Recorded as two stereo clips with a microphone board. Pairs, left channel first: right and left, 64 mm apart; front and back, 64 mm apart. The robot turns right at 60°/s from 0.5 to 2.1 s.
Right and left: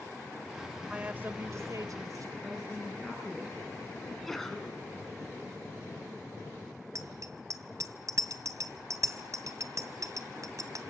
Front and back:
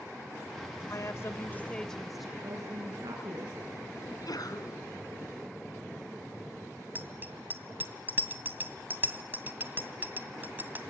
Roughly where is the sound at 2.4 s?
Behind.